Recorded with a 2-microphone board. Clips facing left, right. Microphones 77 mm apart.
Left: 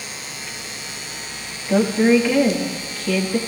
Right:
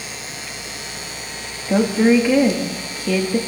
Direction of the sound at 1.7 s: 10° right (ahead or behind).